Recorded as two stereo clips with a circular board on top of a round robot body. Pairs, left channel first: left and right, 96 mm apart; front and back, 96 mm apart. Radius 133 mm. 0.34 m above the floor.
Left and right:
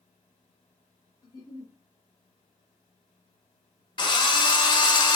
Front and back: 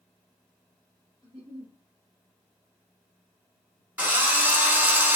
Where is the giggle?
150° left, 1.8 m.